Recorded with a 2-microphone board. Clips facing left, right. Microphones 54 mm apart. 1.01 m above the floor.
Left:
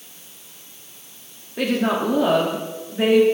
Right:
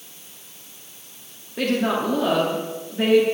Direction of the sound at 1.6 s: 10° left (ahead or behind).